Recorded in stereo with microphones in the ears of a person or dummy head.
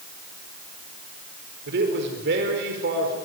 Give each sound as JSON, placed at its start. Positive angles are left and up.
{"t": 1.7, "sound": "a man speaking", "side_deg": -60, "distance_m": 4.5}